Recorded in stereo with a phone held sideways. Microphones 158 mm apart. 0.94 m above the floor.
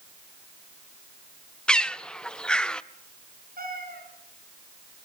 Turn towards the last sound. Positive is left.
turn(degrees=-70)  # may be behind; listen again after turning